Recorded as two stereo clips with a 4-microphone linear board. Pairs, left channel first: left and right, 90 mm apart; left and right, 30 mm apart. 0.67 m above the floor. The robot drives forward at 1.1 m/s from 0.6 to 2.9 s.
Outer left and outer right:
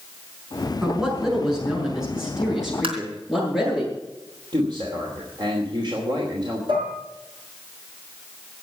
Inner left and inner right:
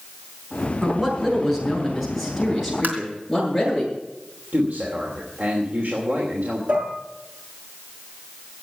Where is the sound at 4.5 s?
55° right (ahead or behind), 3 m.